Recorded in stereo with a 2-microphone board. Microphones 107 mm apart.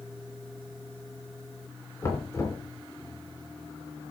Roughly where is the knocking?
Left.